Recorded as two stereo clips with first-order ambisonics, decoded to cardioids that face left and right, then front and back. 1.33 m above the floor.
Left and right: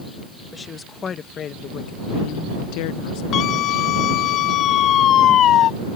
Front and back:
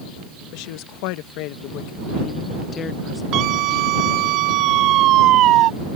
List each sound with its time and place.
0.5 s a woman speaking: 15° left; by 3.2 s 80° left
3.3 s a scream: 140° left